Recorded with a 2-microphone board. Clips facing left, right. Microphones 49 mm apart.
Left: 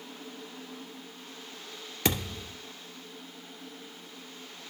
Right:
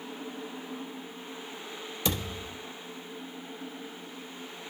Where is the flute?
No flute in this recording.